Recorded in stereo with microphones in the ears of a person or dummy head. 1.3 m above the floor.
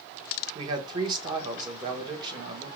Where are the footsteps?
I don't hear footsteps.